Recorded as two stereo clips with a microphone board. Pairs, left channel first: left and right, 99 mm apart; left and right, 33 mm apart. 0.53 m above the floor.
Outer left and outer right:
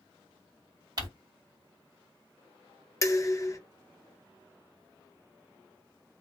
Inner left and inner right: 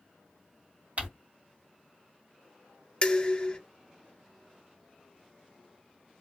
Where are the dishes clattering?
30° left (ahead or behind), 0.5 m.